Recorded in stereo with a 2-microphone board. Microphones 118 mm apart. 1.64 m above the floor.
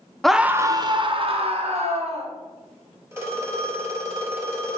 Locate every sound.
0.2 s a scream: 5° left (ahead or behind), 0.6 m; by 2.3 s 65° right (ahead or behind), 2 m
3.1 s a phone ringing: 20° right (ahead or behind), 2.5 m